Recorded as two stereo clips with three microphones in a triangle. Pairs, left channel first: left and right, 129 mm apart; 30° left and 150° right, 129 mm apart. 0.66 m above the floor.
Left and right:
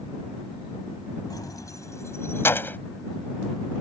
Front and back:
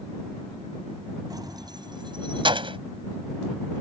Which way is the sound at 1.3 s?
150° left.